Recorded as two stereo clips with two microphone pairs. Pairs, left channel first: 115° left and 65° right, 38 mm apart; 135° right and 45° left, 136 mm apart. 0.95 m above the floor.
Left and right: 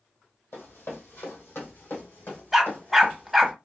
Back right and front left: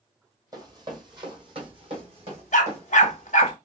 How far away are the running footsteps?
About 1.8 m.